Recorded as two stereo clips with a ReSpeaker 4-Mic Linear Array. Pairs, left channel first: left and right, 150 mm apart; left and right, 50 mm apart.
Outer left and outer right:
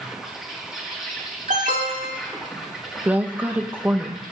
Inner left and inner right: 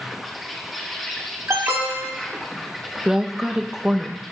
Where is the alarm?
60° right (ahead or behind), 3 m.